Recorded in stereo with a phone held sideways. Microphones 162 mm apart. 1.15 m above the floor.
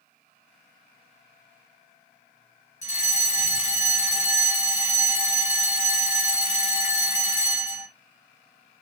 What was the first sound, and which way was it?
A fire alarm, 40° left (ahead or behind).